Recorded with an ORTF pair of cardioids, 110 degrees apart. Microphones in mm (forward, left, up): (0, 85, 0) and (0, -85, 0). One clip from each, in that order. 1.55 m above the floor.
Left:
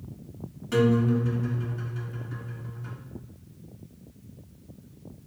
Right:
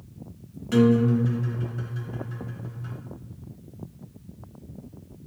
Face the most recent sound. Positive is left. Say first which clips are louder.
# right 2 dB
turn(degrees=-15)